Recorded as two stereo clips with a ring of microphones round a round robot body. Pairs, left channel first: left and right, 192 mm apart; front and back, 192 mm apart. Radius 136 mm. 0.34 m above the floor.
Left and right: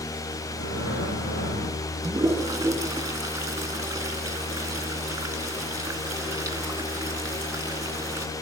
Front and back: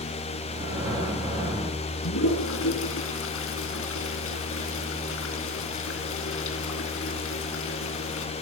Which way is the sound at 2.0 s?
15° right.